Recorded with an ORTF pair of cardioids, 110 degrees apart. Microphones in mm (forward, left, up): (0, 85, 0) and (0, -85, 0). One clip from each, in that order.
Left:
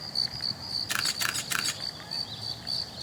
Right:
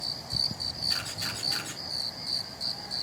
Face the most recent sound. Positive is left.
turn(degrees=65)